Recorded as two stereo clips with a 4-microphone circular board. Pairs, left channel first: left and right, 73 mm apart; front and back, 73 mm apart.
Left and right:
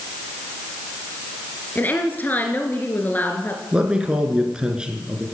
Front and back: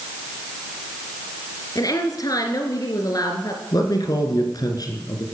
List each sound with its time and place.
1.8 s a woman speaking: 25° left, 2.5 m
3.7 s a man speaking: 15° right, 3 m